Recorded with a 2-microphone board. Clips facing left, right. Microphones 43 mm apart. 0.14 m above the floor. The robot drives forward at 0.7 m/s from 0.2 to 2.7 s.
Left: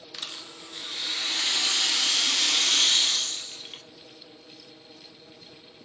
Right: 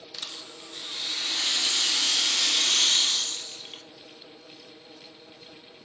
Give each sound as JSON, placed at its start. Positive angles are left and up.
{"t": 0.1, "sound": "a rattle", "side_deg": 25, "distance_m": 1.1}